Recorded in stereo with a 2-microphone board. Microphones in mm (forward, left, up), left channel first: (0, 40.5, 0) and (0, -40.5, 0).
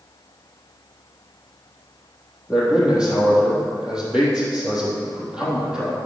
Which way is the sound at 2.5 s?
10° right (ahead or behind).